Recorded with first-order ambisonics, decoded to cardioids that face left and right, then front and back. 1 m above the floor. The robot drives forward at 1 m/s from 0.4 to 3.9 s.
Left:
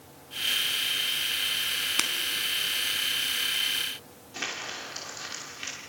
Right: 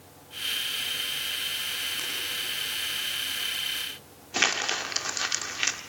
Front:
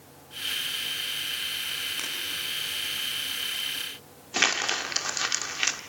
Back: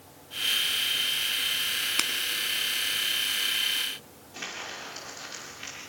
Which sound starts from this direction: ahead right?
Crumpling, at 4.3 s.